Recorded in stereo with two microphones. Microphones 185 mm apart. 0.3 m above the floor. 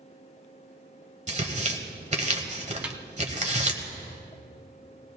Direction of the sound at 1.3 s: 40° right (ahead or behind).